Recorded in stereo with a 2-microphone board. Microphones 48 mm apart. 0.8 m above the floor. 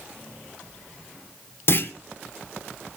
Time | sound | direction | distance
1.7 | a clunk | 50° left (ahead or behind) | 1.5 m